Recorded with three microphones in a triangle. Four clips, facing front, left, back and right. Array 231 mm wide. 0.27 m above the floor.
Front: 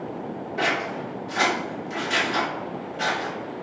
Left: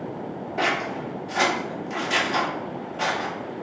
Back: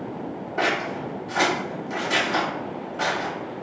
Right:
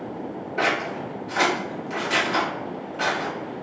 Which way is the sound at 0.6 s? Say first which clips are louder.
Right 1 dB, back 1 dB; 170° left.